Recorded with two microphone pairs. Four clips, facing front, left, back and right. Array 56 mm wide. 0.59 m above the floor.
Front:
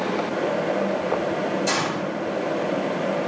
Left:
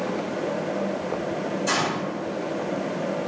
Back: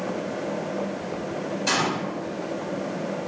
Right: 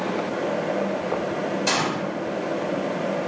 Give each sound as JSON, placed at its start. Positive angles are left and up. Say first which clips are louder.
{"t": 1.7, "sound": "a gunshot", "louder": "even, front 1 dB", "azimuth_deg": -125, "distance_m": 1.7}